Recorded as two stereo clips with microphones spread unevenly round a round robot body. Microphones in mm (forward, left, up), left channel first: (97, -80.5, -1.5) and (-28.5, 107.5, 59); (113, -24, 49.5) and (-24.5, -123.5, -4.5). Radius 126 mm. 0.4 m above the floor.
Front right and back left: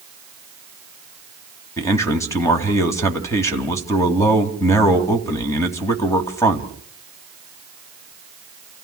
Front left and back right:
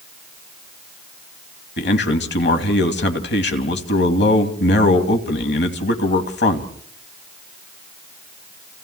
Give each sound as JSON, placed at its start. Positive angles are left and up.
{"t": 1.8, "sound": "a man speaking", "azimuth_deg": 15, "distance_m": 3.0}